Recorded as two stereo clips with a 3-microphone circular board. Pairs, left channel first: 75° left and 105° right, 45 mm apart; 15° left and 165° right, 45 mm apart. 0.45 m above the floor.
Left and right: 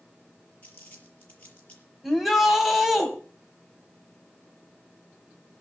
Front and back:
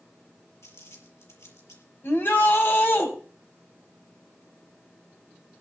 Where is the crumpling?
15° left, 5.5 m.